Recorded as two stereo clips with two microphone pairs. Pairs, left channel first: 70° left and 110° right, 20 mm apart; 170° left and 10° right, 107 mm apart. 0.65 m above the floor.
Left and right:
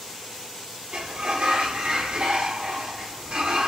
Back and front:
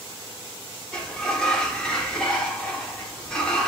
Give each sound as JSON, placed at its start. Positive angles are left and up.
{"t": 0.9, "sound": "a sliding door", "azimuth_deg": -110, "distance_m": 0.8}